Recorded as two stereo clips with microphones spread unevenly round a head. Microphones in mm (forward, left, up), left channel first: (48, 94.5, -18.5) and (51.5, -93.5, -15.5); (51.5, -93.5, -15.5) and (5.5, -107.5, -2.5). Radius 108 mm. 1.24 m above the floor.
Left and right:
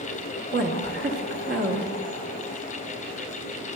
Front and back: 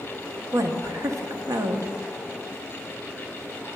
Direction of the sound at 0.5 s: 140° right.